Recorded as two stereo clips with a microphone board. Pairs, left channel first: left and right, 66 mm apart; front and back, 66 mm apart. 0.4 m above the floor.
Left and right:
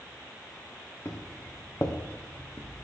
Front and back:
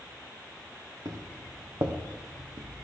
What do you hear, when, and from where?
1.1 s footsteps: 145° left, 3 m; by 2.8 s 150° left, 2 m